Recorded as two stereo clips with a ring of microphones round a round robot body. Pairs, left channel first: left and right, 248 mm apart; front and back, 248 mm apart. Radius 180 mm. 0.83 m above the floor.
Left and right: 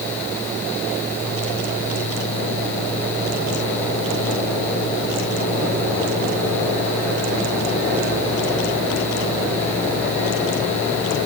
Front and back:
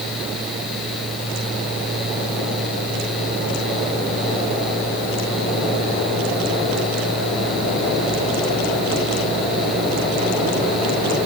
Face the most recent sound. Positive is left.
No sound to turn to.